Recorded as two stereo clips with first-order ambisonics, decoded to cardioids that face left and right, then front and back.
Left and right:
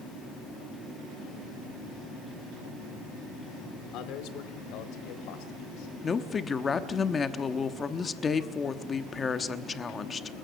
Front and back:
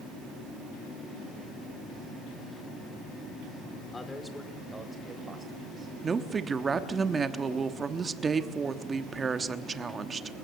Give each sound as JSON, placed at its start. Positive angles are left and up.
{"t": 3.9, "sound": "a man speaking", "azimuth_deg": 75, "distance_m": 1.9}
{"t": 6.0, "sound": "a woman speaking", "azimuth_deg": 135, "distance_m": 1.0}